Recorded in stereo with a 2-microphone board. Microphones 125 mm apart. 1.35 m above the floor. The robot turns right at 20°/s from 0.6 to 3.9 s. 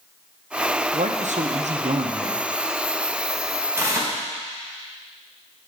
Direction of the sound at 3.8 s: 20° right (ahead or behind).